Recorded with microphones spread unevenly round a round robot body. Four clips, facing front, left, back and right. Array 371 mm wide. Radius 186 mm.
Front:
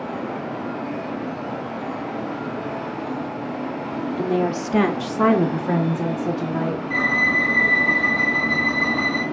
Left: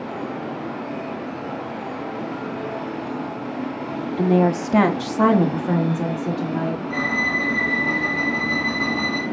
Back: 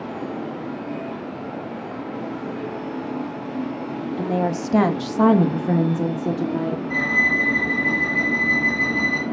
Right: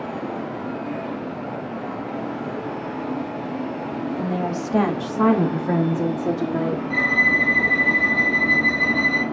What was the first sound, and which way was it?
A woman speaking, 95° left.